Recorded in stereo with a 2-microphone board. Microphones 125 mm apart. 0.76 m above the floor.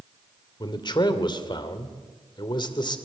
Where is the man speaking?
35° left (ahead or behind), 2.5 m.